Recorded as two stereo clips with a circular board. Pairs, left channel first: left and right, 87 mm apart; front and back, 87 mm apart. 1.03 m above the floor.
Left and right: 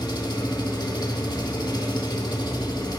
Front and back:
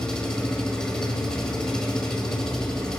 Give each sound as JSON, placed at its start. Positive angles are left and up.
{"t": 0.0, "sound": "an engine running", "azimuth_deg": 80, "distance_m": 1.1}